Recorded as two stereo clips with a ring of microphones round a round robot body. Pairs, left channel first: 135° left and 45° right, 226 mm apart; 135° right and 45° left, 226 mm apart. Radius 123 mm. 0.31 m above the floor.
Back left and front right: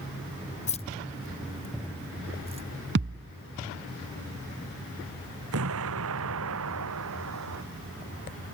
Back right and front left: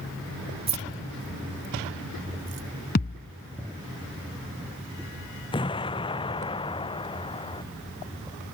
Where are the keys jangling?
95° left; by 2.7 s 15° left.